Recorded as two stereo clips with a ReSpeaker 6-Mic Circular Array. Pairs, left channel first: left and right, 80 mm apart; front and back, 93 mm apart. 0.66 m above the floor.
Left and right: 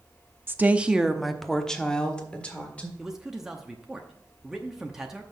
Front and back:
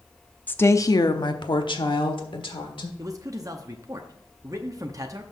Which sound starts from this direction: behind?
A man speaking, at 3.0 s.